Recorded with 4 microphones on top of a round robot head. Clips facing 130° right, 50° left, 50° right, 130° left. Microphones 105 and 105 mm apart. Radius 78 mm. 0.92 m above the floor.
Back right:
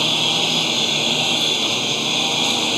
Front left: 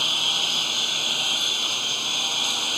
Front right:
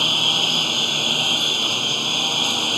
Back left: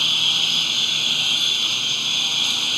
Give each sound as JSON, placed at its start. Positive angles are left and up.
{"t": 0.0, "sound": "a lawn mower", "azimuth_deg": -105}